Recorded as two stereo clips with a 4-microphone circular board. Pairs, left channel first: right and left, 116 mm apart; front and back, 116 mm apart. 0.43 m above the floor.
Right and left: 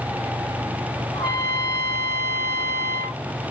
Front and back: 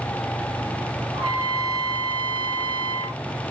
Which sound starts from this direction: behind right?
A trumpet, at 1.1 s.